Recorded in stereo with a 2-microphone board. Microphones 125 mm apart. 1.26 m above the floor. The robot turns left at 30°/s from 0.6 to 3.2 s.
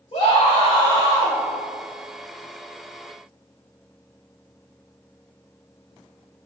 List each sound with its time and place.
0.1 s a scream: 45° left (ahead or behind), 3.5 m; by 1.4 s 20° left (ahead or behind), 3.5 m